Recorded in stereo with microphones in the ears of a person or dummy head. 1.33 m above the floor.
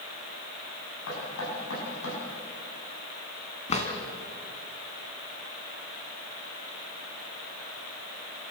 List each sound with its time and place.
1.1 s knocking: 85° left, 10 m
3.7 s a drawer: 30° left (ahead or behind), 3 m